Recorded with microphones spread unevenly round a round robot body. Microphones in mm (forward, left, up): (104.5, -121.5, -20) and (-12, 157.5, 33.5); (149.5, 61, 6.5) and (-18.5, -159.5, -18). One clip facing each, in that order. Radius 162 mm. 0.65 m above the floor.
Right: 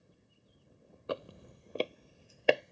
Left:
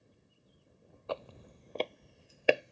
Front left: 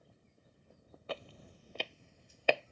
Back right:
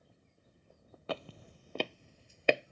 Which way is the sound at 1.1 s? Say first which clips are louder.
Right 2 dB, back right 4 dB; 145° right.